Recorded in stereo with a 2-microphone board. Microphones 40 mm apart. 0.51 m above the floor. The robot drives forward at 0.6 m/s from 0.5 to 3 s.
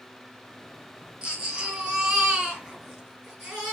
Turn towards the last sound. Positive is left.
turn(degrees=-15)  # may be behind; listen again after turning